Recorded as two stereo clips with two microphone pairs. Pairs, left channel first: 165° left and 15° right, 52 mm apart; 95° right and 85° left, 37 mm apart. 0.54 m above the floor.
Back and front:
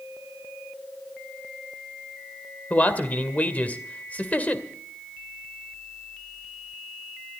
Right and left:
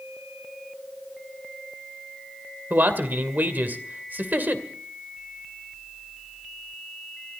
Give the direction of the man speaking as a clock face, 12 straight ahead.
8 o'clock.